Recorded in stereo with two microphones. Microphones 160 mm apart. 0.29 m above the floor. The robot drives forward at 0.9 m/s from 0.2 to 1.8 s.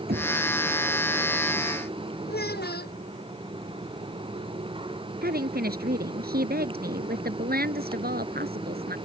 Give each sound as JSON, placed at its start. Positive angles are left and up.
{"t": 0.1, "sound": "knocking", "side_deg": -75}
{"t": 2.3, "sound": "a child speaking", "side_deg": 85}
{"t": 5.2, "sound": "a woman speaking", "side_deg": -75}